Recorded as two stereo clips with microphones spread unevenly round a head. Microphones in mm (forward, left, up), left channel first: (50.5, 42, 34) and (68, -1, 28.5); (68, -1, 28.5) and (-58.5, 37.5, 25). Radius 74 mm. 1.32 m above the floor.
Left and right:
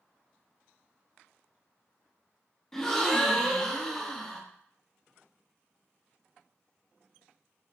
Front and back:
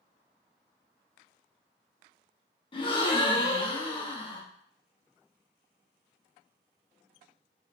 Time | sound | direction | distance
2.7 | a gasp | 30° left | 0.9 m